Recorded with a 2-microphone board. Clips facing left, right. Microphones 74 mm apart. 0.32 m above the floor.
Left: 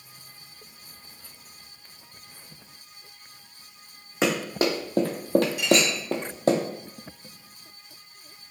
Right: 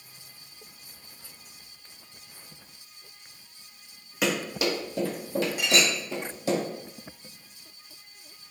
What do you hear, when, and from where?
4.2 s running footsteps: 25° left (ahead or behind), 1.1 m; by 6.6 s 50° left (ahead or behind), 0.8 m
5.6 s a clink: 50° right (ahead or behind), 1.3 m